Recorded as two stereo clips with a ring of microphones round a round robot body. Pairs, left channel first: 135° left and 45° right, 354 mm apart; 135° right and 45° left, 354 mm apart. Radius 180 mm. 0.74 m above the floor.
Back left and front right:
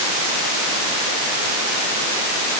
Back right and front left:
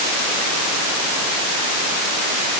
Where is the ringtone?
I don't hear a ringtone.